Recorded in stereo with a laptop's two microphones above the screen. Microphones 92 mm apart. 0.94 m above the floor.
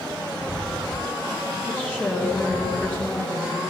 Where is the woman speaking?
15° left (ahead or behind), 1.9 m.